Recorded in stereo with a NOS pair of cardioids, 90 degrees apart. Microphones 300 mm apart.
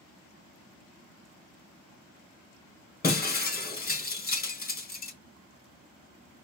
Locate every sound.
3.0 s breaking glass: 30° left, 1.9 m